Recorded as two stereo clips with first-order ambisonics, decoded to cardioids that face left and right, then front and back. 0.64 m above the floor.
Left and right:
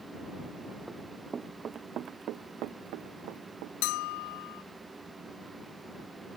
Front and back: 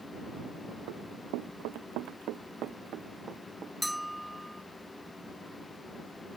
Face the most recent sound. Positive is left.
turn(degrees=95)